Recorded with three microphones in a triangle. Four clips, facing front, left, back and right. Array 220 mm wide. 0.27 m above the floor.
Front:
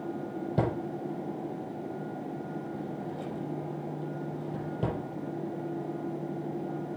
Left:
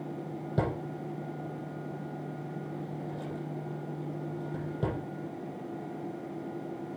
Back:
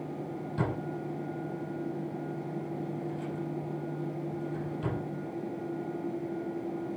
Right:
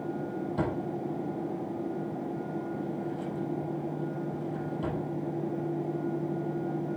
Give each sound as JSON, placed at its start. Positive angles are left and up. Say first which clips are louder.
{"t": 0.6, "sound": "a drawer", "louder": "even, front 3 dB", "azimuth_deg": 35, "distance_m": 4.5}